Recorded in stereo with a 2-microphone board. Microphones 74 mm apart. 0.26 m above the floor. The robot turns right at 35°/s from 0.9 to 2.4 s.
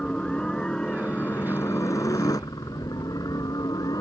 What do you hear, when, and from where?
0.0 s a helicopter: 10° left; by 4.0 s 65° left